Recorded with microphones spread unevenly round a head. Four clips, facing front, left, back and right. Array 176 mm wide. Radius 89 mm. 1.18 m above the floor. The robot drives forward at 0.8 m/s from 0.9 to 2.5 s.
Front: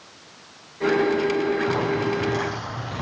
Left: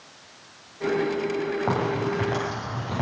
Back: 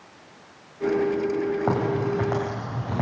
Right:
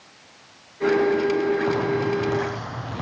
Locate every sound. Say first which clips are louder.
1.7 s a crack: right 3 dB, front 1 dB; 160° left, 8.5 m